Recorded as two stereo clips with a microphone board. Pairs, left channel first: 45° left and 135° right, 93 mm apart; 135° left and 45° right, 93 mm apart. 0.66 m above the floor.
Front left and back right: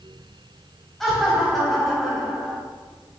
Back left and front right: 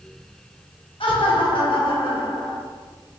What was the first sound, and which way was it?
Laughter, 135° left.